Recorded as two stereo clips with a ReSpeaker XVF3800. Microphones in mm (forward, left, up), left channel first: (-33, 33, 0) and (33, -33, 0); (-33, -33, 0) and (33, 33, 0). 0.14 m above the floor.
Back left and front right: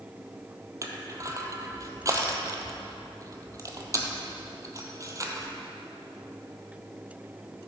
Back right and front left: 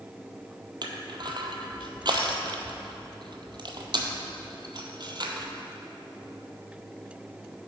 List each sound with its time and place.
0.8 s crushing: 10° left, 0.8 m